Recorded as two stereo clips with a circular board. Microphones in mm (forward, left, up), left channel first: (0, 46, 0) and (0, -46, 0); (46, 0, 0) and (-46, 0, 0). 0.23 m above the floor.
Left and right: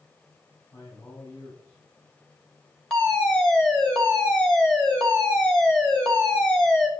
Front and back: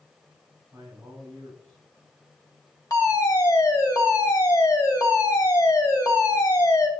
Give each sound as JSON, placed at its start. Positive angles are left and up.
{"t": 0.7, "sound": "a man speaking", "azimuth_deg": 130, "distance_m": 6.5}
{"t": 2.9, "sound": "a fire alarm", "azimuth_deg": 15, "distance_m": 2.5}